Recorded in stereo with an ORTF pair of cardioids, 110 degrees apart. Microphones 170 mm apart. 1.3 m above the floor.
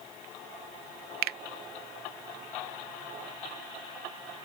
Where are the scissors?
No scissors in this recording.